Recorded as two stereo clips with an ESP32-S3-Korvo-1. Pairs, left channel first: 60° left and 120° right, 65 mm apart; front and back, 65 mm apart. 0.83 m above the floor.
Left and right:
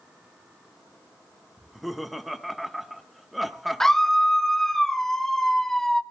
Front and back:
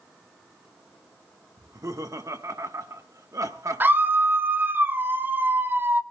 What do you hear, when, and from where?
1.6 s laughter: 150° left, 1.3 m
3.8 s a scream: 140° left, 0.7 m